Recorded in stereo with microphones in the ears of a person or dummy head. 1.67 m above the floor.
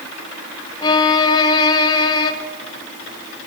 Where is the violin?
20° left (ahead or behind), 2 m.